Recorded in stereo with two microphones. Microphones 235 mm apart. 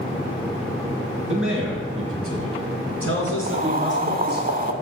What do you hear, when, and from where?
1.2 s a man speaking: 60° right (ahead or behind), 3.5 m; by 4.5 s 45° right (ahead or behind), 3 m
3.5 s boiling: 40° right (ahead or behind), 0.6 m